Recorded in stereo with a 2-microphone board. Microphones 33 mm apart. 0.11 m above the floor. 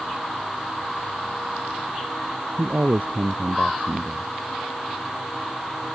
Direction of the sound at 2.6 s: 60° right (ahead or behind).